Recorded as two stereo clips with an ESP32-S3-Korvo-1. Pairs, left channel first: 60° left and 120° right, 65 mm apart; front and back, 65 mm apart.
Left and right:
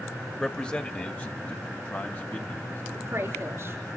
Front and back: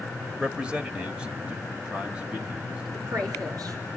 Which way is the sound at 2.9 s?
170° right.